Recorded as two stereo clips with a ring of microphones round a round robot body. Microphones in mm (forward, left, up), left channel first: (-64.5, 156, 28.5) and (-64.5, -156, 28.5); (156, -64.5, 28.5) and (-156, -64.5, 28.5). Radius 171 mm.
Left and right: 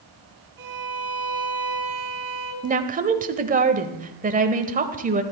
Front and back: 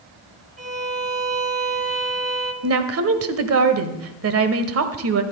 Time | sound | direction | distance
0.6 | a violin | 115° right | 3 m
2.6 | a woman speaking | 150° right | 1.3 m